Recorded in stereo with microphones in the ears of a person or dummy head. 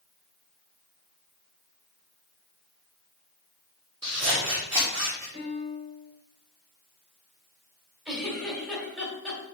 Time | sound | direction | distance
4.0 | scissors | 35° right (ahead or behind) | 3.5 m
5.3 | a piano | 65° right (ahead or behind) | 4 m
8.1 | a giggle | 5° right (ahead or behind) | 2.5 m